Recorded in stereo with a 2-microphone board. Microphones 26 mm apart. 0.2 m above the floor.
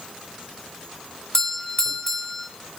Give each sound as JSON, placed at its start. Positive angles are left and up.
{"t": 1.3, "sound": "a doorbell", "side_deg": 20, "distance_m": 1.7}